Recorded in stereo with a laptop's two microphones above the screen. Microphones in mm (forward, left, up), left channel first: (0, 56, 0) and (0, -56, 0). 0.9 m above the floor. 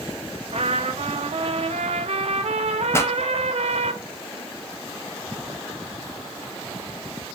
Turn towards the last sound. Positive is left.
turn(degrees=25)  # may be behind; listen again after turning